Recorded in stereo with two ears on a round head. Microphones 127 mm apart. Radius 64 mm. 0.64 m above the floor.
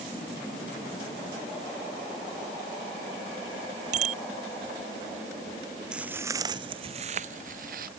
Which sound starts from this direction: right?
A bicycle bell, at 3.9 s.